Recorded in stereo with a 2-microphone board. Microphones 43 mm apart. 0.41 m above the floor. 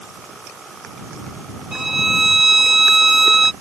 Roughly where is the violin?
Centre.